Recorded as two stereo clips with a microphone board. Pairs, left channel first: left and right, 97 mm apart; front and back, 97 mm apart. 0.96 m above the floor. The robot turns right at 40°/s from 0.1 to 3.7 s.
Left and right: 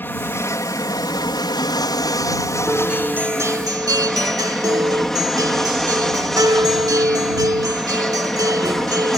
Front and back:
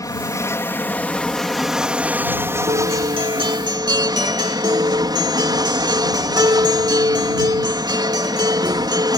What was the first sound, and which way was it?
An aircraft, 30° left.